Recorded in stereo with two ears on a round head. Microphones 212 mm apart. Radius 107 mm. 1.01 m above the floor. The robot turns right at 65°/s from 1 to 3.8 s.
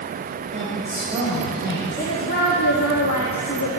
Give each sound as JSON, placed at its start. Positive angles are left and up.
{"t": 0.5, "sound": "a woman speaking", "azimuth_deg": -25, "distance_m": 5.0}
{"t": 2.0, "sound": "a woman speaking", "azimuth_deg": 20, "distance_m": 1.8}